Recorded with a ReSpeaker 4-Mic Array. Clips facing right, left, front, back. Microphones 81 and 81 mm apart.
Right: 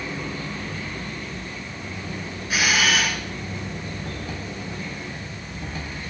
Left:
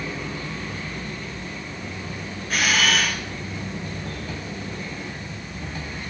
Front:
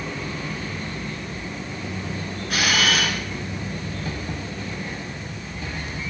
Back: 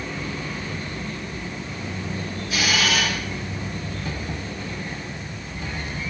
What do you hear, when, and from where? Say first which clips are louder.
2.5 s a camera shutter: even, front 1 dB; 5° right, 2.5 m